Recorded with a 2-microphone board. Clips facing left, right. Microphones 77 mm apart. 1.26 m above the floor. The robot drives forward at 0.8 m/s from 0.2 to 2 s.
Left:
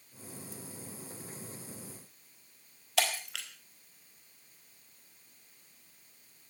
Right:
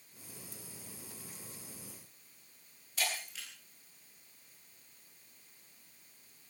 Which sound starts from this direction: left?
Breaking glass, at 3.0 s.